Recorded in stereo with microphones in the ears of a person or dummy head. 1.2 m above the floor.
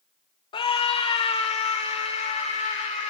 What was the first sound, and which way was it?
A scream, 30° left (ahead or behind).